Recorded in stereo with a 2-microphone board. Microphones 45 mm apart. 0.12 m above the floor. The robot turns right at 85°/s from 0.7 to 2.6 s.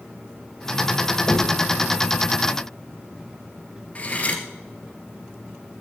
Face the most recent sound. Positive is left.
turn(degrees=30)  # may be behind; listen again after turning